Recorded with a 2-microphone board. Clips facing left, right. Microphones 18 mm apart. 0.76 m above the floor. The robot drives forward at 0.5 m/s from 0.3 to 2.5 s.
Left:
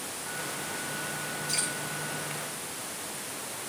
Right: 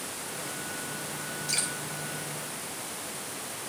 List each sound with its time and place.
1.5 s dripping: 65° right (ahead or behind), 3 m; by 1.7 s 70° right (ahead or behind), 3 m